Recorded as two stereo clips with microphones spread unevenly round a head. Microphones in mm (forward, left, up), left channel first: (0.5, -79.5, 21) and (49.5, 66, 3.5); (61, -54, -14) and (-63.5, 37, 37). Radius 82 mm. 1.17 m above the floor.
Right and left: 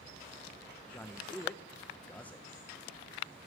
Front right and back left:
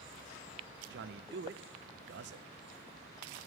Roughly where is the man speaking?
Behind.